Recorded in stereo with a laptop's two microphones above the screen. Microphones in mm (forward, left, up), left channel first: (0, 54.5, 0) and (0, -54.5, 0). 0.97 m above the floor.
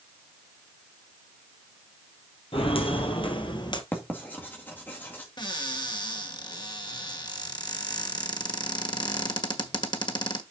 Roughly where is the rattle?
No rattle in this recording.